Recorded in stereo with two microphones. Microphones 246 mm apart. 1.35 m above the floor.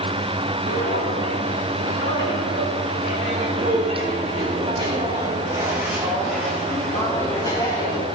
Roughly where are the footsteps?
Right.